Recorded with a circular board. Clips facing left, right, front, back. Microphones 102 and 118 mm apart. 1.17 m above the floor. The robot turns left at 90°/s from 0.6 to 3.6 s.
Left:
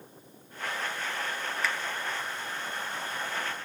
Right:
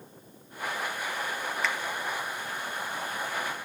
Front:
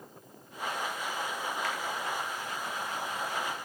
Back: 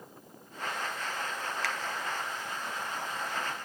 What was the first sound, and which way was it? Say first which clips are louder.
A finger snap: right 1 dB, even; straight behind.